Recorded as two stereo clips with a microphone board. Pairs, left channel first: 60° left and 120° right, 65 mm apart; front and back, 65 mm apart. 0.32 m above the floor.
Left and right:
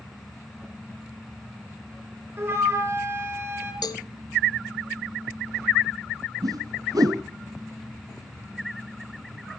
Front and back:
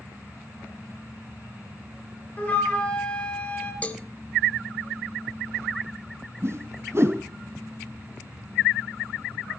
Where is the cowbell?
65° left, 0.6 m.